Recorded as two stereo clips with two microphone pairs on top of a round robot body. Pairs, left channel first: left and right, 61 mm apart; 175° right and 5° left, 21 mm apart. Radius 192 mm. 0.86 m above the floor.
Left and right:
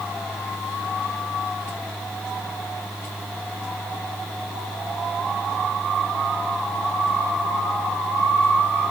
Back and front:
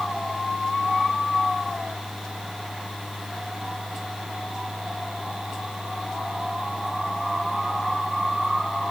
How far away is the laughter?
No laughter in this recording.